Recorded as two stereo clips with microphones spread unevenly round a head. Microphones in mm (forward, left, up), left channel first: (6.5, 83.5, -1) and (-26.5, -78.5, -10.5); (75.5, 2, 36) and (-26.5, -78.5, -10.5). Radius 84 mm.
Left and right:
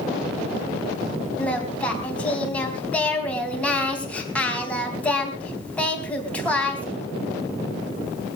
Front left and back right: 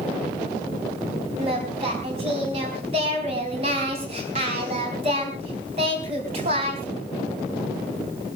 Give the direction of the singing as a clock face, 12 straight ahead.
7 o'clock.